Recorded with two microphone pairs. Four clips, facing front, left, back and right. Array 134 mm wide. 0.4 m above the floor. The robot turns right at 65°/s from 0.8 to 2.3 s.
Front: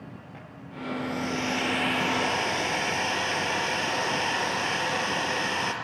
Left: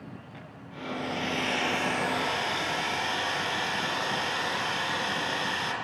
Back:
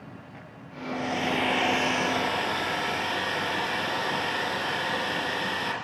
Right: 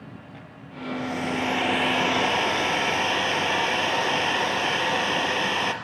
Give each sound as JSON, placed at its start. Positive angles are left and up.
{"t": 0.9, "sound": "a hair dryer", "azimuth_deg": -175, "distance_m": 5.5}